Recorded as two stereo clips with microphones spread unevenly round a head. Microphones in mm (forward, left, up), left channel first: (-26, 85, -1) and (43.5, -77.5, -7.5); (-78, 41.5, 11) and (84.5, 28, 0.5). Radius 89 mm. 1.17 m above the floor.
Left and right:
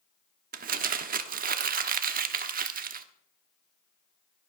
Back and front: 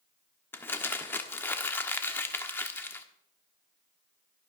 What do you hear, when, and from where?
0.5 s crumpling: 110° right, 1.2 m